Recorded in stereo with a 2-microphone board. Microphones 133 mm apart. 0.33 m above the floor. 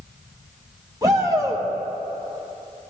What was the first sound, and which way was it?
A shout, 25° right (ahead or behind).